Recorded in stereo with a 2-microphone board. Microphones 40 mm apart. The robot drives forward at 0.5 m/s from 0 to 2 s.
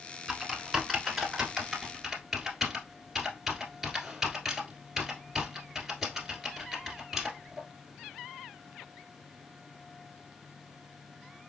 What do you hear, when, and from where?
0.3 s typing on a keyboard: 10° right (ahead or behind), 0.8 m; by 7.6 s 5° right (ahead or behind), 1.5 m